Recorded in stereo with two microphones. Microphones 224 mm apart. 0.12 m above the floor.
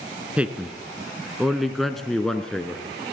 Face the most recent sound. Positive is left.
turn(degrees=5)  # may be behind; listen again after turning